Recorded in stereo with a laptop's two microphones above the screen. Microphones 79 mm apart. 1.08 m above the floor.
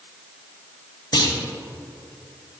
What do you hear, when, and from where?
1.1 s a clunk: 60° left (ahead or behind), 1.3 m